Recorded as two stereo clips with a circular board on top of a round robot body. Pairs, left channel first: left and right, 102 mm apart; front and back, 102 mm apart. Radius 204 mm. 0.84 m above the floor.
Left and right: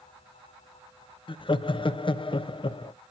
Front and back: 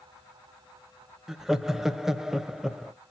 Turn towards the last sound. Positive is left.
turn(degrees=95)